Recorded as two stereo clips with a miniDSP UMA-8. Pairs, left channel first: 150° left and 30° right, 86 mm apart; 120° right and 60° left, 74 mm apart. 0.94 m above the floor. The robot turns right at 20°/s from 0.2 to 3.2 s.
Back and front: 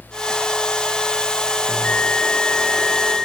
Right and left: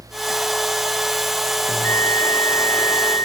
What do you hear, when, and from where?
1.7 s a bell: 140° right, 0.5 m; by 3.3 s 110° right, 0.5 m